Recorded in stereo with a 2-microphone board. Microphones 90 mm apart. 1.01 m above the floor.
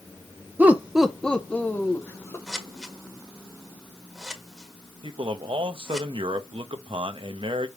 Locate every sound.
0.6 s laughter: 20° right (ahead or behind), 0.7 m; by 2.4 s 30° left (ahead or behind), 1.3 m
2.5 s scissors: 5° right (ahead or behind), 1.6 m
5.0 s a man speaking: 70° right (ahead or behind), 0.8 m